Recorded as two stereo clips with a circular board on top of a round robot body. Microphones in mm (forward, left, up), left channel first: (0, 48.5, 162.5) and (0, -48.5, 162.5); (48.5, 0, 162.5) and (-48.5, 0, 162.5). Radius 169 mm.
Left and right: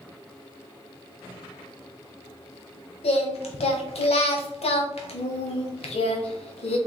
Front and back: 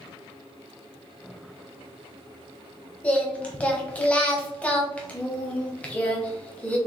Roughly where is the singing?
Left.